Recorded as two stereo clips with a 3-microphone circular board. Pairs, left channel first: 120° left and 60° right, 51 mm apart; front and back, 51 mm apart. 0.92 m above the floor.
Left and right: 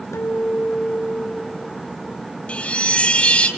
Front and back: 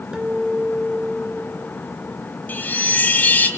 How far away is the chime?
About 2.5 m.